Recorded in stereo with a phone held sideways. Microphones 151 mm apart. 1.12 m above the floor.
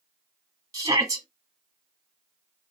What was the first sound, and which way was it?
A shout, 25° right (ahead or behind).